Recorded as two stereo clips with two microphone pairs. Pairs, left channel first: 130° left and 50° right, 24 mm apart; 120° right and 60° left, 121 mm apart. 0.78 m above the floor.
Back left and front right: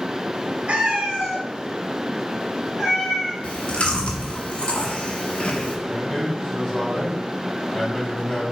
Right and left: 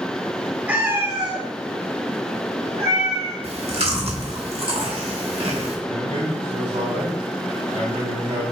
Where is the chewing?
95° left, 0.9 m.